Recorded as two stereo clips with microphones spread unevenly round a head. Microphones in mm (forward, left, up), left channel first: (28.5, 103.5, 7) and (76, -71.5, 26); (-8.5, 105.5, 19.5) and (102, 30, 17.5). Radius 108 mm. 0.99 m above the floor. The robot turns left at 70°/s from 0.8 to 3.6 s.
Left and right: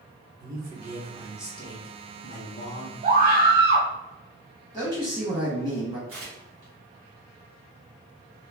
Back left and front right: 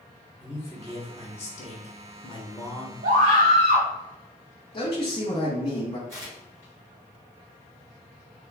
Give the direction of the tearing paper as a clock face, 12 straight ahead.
3 o'clock.